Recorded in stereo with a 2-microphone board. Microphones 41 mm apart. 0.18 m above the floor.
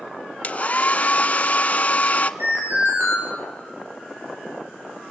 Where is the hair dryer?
35° left (ahead or behind), 0.8 m.